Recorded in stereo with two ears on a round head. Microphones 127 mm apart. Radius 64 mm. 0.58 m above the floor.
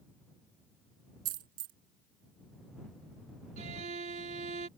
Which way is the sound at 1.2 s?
65° right (ahead or behind).